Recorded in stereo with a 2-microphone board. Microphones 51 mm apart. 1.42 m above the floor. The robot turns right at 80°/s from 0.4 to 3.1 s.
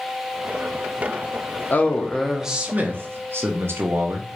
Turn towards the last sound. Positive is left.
turn(degrees=-115)